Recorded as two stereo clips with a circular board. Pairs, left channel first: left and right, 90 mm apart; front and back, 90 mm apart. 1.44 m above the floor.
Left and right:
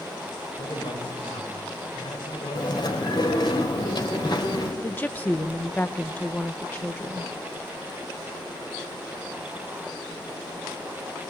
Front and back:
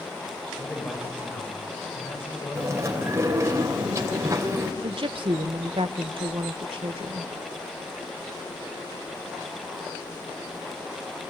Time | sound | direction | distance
0.6 | a man speaking | 65° left | 8.5 m
2.5 | chewing | 120° left | 3 m
4.8 | a woman speaking | 160° left | 1.1 m